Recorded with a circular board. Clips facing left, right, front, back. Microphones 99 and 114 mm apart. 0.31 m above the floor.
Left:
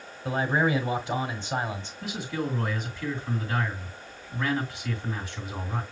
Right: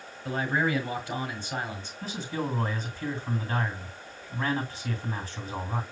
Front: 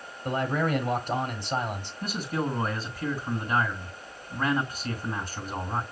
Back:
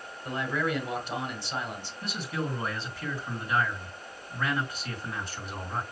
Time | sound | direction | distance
0.2 | a man speaking | 25° left | 1.5 m
2.0 | a man speaking | 40° right | 3 m